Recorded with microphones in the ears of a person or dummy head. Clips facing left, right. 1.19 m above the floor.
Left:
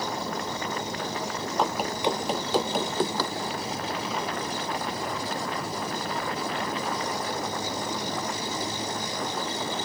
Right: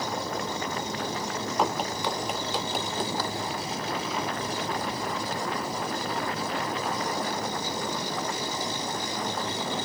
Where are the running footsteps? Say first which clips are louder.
Left 2 dB; centre (ahead or behind); by 3.3 s 60° left (ahead or behind).